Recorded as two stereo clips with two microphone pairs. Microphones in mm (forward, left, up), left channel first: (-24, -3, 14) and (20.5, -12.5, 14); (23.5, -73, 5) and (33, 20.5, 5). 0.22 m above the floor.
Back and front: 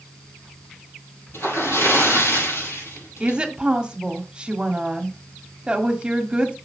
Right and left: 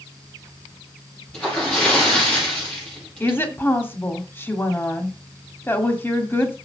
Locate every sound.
1.3 s a splash: straight behind, 5.5 m
3.2 s a woman speaking: 60° right, 1.6 m